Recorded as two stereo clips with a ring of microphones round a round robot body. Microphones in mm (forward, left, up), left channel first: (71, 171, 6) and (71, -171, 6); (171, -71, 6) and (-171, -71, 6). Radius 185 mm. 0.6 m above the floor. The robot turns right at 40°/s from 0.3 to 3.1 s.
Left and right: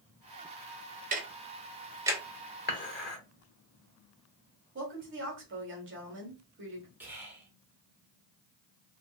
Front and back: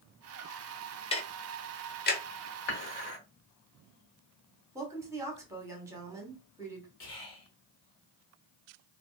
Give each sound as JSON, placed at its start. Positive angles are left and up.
{"t": 1.1, "sound": "ticking", "azimuth_deg": -55, "distance_m": 0.6}
{"t": 2.7, "sound": "dishes clattering", "azimuth_deg": 25, "distance_m": 1.3}
{"t": 4.8, "sound": "a woman speaking", "azimuth_deg": -105, "distance_m": 1.2}
{"t": 7.0, "sound": "whispering", "azimuth_deg": -5, "distance_m": 1.4}